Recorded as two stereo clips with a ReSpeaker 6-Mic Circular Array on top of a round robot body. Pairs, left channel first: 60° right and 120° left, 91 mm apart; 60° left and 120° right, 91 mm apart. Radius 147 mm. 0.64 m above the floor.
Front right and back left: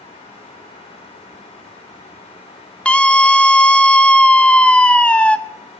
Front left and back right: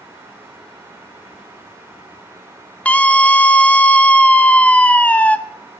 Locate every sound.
2.9 s a scream: 5° left, 1.0 m